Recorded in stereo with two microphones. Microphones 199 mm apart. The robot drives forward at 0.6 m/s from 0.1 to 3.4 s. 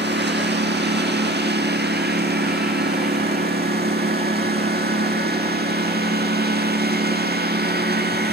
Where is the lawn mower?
60° right (ahead or behind); by 8.3 s 50° right (ahead or behind).